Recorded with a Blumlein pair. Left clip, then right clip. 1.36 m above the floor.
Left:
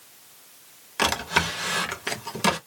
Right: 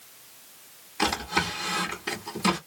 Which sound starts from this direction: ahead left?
A drawer, at 1.0 s.